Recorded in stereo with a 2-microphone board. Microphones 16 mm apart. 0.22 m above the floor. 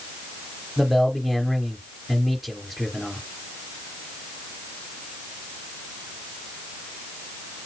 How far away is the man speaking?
About 3 m.